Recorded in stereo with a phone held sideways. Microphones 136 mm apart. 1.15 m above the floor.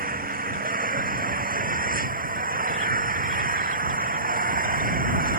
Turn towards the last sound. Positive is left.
turn(degrees=-85)